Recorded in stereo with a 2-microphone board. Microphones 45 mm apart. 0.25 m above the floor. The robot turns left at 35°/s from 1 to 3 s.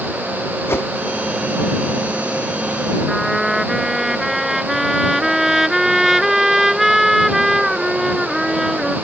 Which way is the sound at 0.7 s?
65° left (ahead or behind).